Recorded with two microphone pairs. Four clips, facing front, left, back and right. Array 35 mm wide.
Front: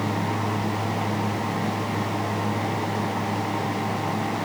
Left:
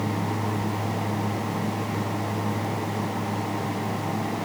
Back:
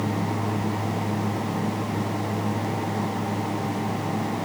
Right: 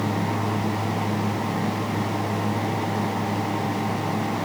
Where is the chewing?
I don't hear chewing.